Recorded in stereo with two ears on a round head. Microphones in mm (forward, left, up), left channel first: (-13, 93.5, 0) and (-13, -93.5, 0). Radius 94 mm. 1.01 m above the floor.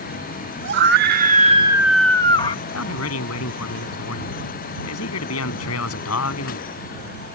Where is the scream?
60° right (ahead or behind); by 2.5 s 30° left (ahead or behind).